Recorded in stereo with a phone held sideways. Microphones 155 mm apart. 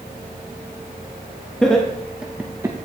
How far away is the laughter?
About 1.1 m.